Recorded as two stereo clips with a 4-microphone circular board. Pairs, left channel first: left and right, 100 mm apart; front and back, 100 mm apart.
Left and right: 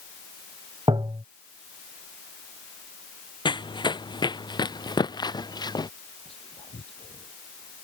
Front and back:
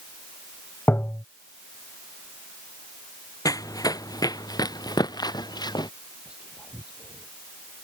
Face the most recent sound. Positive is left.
turn(degrees=100)